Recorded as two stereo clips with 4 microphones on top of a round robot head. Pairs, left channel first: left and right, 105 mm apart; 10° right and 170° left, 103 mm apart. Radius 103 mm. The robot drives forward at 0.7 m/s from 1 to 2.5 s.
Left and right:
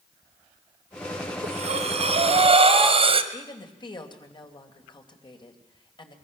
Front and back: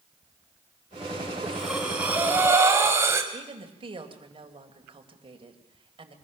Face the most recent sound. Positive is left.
turn(degrees=135)